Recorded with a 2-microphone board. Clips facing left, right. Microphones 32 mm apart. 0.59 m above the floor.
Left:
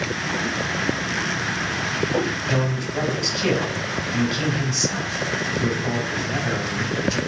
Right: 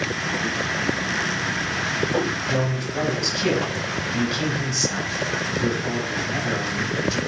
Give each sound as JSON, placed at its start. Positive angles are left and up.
{"t": 2.5, "sound": "a man speaking", "side_deg": -5, "distance_m": 4.0}